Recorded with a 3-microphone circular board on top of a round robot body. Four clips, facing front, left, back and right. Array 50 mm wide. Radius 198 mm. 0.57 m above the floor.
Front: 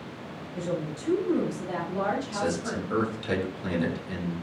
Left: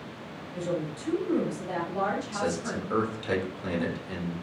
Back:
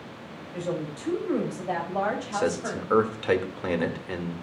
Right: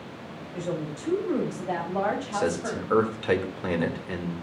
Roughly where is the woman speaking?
Behind.